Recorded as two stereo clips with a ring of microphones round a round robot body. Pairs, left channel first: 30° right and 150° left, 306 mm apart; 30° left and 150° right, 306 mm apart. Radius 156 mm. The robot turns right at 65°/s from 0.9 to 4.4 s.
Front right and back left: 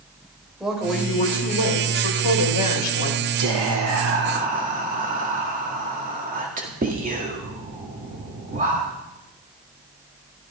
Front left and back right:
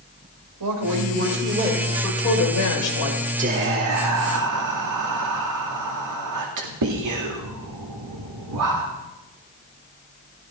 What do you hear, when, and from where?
0.6 s a woman speaking: 120° right, 3.5 m; by 3.3 s 35° left, 3.5 m
3.4 s whispering: 145° left, 2.0 m; by 8.9 s 150° right, 2.0 m